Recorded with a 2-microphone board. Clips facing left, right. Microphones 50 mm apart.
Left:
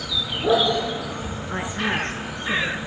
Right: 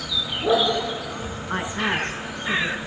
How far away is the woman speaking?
About 8 m.